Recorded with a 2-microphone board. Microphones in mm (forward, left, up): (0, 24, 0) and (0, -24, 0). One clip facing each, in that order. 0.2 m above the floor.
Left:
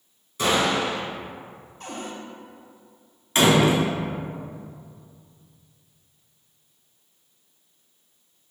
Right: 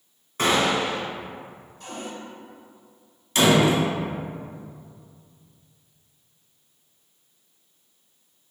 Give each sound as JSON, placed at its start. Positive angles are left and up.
{"t": 0.4, "sound": "a gunshot", "side_deg": -45, "distance_m": 0.7}
{"t": 1.8, "sound": "a cupboard door", "side_deg": 50, "distance_m": 0.7}
{"t": 3.4, "sound": "a door slam", "side_deg": 30, "distance_m": 0.9}